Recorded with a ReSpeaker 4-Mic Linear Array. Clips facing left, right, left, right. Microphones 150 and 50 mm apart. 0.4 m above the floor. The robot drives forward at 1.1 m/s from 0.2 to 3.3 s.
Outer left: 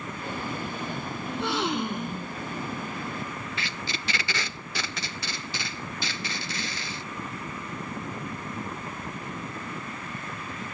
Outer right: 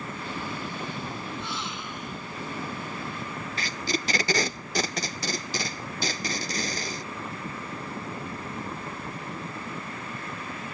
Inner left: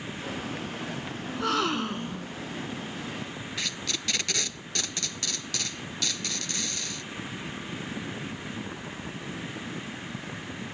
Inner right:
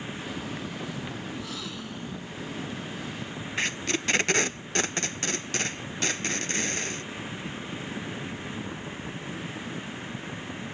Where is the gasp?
80° left; by 2.4 s 50° left (ahead or behind).